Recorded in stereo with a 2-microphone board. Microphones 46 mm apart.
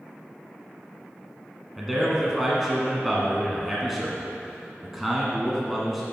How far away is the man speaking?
About 1.1 m.